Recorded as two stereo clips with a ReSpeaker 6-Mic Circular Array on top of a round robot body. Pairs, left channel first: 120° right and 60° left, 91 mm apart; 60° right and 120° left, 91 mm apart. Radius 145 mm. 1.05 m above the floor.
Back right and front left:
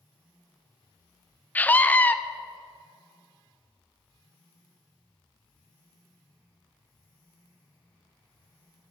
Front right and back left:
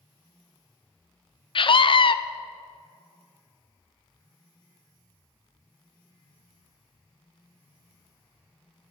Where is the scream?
50° right, 0.8 m.